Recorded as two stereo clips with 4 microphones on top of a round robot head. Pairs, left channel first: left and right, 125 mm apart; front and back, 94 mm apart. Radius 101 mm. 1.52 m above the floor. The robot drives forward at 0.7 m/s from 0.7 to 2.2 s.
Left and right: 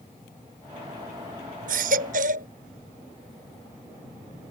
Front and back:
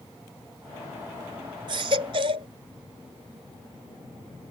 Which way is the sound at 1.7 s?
120° right.